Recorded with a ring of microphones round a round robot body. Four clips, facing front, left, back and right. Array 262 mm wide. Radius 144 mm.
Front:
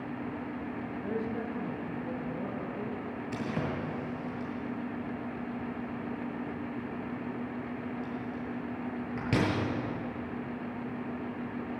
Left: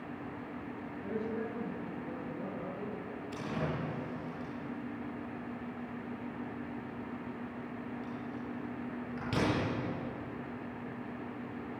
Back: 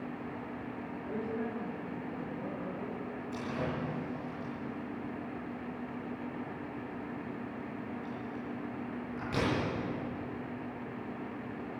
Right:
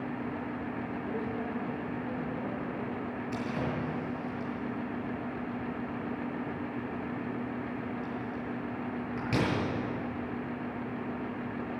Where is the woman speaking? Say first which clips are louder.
Left 1 dB, front 1 dB; 5° left, 7.5 m.